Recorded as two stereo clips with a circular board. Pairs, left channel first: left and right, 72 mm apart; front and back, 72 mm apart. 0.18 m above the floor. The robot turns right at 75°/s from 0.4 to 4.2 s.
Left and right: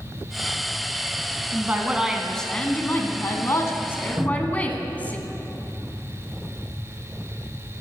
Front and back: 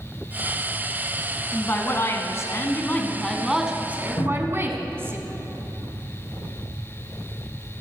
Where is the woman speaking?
55° right, 1.5 m; by 5.2 s 150° left, 1.5 m.